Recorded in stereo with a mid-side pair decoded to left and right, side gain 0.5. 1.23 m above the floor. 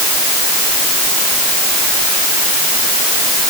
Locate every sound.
Only background noise.